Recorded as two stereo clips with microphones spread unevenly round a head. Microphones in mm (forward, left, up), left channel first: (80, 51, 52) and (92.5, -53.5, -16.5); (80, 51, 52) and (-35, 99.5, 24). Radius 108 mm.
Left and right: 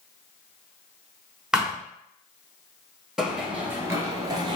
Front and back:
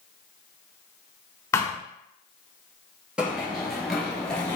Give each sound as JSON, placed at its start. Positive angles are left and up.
{"t": 1.5, "sound": "a thud", "azimuth_deg": 30, "distance_m": 1.0}
{"t": 3.2, "sound": "running footsteps", "azimuth_deg": 60, "distance_m": 1.2}